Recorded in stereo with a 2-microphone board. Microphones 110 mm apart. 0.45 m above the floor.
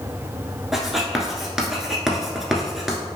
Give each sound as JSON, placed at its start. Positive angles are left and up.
{"t": 0.7, "sound": "writing", "side_deg": 0, "distance_m": 0.9}